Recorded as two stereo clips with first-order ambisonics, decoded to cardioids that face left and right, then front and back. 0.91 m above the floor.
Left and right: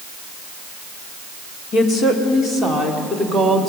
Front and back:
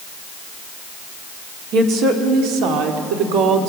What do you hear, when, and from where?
1.7 s a woman speaking: 140° left, 2.5 m; by 3.7 s straight behind, 3 m